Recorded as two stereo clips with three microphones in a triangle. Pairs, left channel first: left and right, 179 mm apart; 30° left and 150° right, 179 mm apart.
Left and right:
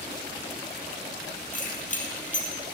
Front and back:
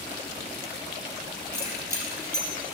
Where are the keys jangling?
135° left, 3 m.